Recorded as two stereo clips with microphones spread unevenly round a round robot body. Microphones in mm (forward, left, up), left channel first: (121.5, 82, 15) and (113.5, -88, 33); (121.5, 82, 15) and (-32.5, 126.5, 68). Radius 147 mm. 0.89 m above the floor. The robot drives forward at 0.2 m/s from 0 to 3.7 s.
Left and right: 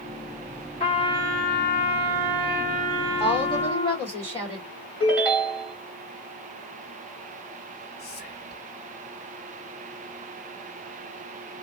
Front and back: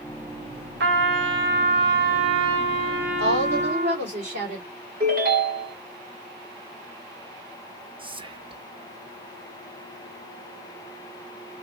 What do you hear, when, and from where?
0.8 s a trumpet: 150° left, 0.8 m; by 4.1 s 160° left, 1.3 m
3.2 s a woman speaking: 165° left, 1.9 m
5.0 s a ringtone: straight behind, 0.7 m
8.0 s whispering: 95° left, 0.6 m